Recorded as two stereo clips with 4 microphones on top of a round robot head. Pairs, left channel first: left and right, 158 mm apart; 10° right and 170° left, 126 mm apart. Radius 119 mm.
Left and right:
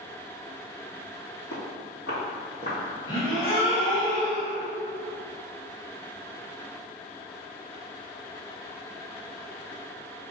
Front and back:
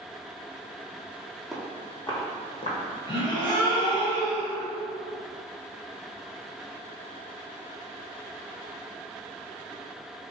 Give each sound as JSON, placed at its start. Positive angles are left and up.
{"t": 1.5, "sound": "footsteps", "azimuth_deg": 80, "distance_m": 1.3}
{"t": 3.1, "sound": "a gasp", "azimuth_deg": 35, "distance_m": 1.8}